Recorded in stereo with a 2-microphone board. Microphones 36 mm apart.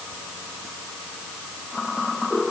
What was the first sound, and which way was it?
Only background noise.